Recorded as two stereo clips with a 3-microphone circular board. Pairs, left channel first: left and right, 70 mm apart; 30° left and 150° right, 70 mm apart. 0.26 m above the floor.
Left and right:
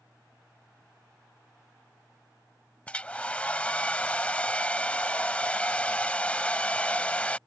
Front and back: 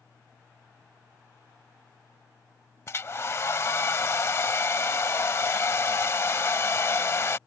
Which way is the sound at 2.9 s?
30° left.